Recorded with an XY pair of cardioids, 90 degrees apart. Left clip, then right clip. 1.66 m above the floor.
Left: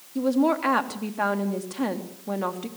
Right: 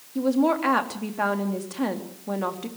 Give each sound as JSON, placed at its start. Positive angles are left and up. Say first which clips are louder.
{"t": 0.1, "sound": "a woman speaking", "louder": "even", "azimuth_deg": 0, "distance_m": 3.5}